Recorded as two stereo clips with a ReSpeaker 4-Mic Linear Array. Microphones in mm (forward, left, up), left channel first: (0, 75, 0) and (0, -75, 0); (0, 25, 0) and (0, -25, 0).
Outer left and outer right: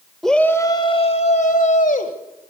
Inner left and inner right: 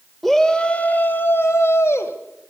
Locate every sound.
0.2 s a shout: centre (ahead or behind), 0.9 m; by 2.1 s 65° left (ahead or behind), 1.7 m